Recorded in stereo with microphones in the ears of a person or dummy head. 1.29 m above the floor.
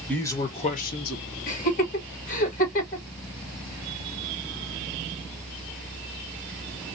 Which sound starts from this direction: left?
Laughter, at 1.5 s.